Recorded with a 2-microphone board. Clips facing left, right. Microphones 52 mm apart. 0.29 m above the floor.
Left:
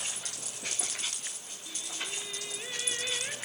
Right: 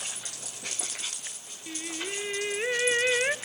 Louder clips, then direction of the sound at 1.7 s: Right 5 dB; 60° right (ahead or behind).